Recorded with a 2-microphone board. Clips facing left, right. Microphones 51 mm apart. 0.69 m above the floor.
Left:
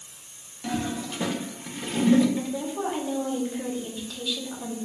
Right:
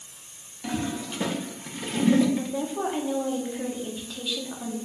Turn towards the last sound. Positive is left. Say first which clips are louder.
# right 1 dB
turn(degrees=-15)  # may be behind; listen again after turning